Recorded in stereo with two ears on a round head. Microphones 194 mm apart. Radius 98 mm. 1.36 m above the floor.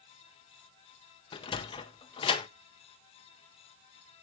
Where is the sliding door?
25° left (ahead or behind), 0.7 m.